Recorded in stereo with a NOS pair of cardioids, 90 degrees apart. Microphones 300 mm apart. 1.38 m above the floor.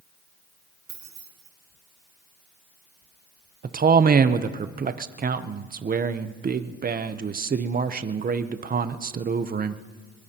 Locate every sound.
0.9 s keys jangling: 65° right, 4.5 m
3.6 s a man speaking: 30° right, 0.7 m